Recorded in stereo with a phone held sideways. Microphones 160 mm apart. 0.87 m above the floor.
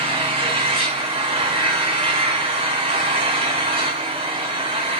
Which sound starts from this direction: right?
An engine running, at 0.0 s.